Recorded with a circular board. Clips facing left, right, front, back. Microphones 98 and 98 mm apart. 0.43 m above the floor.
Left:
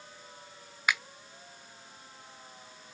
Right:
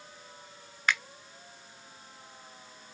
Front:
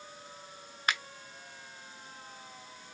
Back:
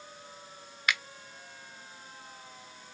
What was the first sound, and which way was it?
A finger snap, 15° left.